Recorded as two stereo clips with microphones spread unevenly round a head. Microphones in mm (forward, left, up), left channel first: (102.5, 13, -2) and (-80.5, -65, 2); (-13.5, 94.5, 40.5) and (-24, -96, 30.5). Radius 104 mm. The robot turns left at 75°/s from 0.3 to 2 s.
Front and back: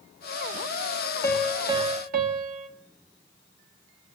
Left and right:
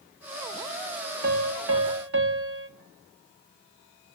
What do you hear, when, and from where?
1.2 s a piano: 55° right, 3 m; by 2.7 s 110° right, 3 m